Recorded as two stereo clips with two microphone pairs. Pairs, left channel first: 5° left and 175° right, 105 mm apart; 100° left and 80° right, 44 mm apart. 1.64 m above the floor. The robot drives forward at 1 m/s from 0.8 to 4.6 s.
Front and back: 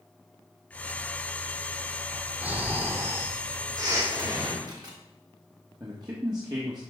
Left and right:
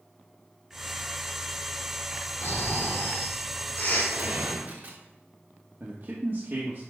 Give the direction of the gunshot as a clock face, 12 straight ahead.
4 o'clock.